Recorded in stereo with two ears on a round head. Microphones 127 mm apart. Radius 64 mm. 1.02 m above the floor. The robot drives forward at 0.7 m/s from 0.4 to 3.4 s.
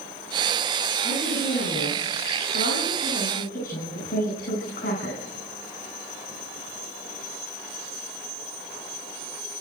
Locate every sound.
1.0 s a woman speaking: 75° left (ahead or behind), 10 m; by 5.2 s 65° left (ahead or behind), 10.5 m